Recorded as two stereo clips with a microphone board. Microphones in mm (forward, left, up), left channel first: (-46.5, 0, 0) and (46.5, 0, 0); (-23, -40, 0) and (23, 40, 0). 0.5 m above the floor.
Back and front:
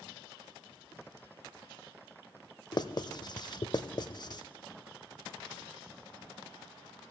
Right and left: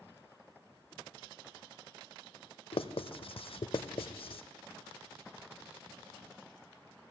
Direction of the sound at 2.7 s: 140° right.